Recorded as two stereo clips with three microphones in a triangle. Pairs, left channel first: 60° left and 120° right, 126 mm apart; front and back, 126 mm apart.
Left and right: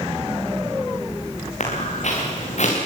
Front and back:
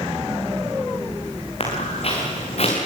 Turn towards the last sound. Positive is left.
turn(degrees=35)